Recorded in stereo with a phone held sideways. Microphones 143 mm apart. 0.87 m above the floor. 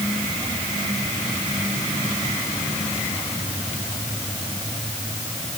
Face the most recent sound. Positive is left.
No sound to turn to.